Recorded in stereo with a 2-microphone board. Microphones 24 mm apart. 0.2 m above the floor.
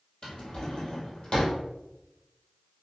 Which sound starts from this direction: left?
A drawer, at 0.2 s.